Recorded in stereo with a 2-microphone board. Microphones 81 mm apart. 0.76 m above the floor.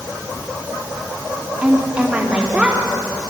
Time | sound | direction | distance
1.6 | a woman speaking | 20° right (ahead or behind) | 1.6 m